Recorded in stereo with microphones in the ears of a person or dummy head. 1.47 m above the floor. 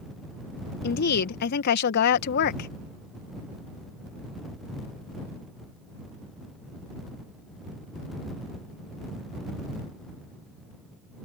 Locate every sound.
0.8 s a woman speaking: 60° left (ahead or behind)